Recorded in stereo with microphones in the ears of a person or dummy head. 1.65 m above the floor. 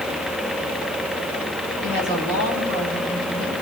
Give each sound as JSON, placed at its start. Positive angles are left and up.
{"t": 1.8, "sound": "a woman speaking", "side_deg": -60, "distance_m": 8.0}